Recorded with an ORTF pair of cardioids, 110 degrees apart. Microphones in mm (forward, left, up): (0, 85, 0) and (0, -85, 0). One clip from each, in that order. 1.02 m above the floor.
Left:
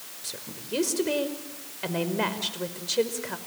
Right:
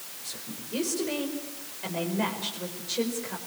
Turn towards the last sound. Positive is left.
turn(degrees=45)